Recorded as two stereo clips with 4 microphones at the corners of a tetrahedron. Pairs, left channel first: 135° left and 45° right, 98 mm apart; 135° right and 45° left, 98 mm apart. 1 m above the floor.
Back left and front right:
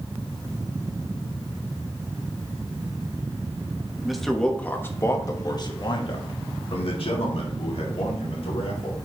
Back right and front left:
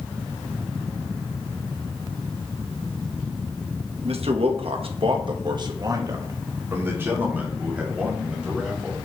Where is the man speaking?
40° left, 1.1 m; by 8.9 s 130° left, 3 m.